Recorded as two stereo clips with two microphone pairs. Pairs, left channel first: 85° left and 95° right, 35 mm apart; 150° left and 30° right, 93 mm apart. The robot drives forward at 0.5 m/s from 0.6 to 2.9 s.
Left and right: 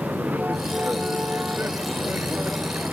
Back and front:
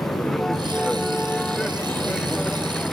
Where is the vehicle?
120° right; by 2.9 s 125° right.